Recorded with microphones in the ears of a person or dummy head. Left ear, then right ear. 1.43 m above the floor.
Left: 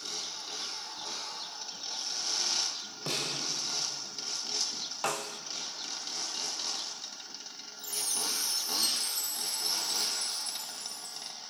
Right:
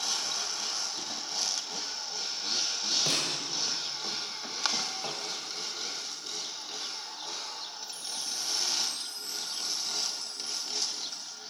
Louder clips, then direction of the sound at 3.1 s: Right 4 dB; 5° right (ahead or behind).